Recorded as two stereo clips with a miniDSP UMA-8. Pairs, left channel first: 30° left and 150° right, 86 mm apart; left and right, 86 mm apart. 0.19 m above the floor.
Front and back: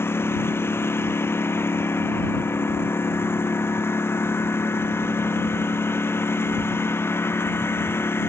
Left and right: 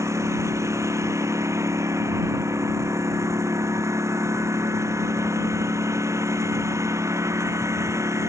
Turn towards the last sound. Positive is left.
turn(degrees=-35)